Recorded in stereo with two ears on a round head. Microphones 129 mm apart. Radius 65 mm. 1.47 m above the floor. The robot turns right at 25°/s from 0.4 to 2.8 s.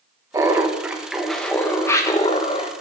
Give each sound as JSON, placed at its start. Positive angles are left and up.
{"t": 0.3, "sound": "laughter", "azimuth_deg": -20, "distance_m": 1.2}